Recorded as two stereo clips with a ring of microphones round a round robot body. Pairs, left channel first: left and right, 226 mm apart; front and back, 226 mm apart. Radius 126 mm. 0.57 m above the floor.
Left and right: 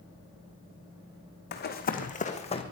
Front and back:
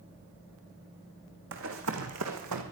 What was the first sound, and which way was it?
Running footsteps, 135° left.